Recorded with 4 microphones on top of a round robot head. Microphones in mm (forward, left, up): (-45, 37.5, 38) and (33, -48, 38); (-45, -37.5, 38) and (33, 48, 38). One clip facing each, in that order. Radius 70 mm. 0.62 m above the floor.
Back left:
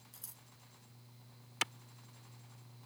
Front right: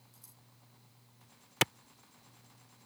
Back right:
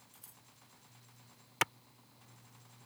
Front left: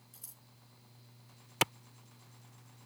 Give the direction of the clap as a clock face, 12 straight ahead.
1 o'clock.